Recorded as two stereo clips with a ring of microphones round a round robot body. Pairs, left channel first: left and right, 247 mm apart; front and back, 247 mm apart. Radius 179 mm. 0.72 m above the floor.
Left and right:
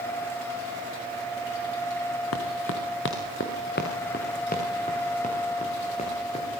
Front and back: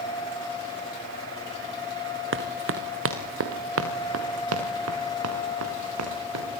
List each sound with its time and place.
2.3 s running footsteps: 145° left, 2.5 m; by 6.5 s 165° left, 6.5 m